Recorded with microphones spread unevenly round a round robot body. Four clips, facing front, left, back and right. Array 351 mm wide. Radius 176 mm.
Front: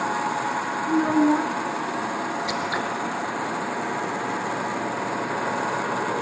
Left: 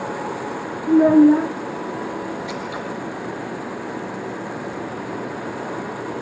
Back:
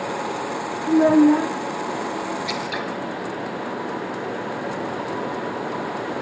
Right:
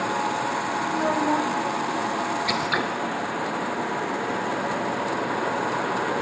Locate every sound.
0.9 s a child speaking: 105° left, 1.3 m
2.5 s scissors: 85° right, 4.5 m